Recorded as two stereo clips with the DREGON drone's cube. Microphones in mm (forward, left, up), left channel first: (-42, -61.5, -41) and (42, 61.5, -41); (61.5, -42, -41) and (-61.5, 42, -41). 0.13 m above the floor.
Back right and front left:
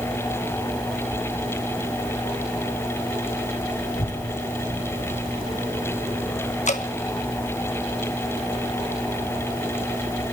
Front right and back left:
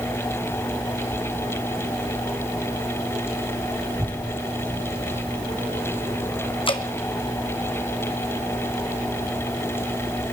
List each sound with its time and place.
3.9 s a child speaking: 115° right, 2 m
6.7 s dripping: 90° right, 0.9 m